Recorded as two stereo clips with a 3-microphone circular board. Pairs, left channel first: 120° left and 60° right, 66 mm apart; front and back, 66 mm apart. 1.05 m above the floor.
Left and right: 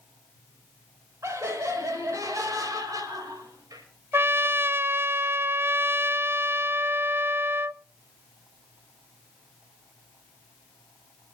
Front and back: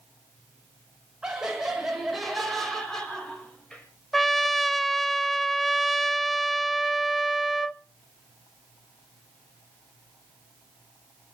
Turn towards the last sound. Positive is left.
turn(degrees=-90)